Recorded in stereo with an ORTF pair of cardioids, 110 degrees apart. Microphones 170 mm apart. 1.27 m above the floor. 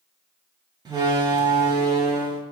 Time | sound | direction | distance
0.8 | a door slam | 25° right | 1.9 m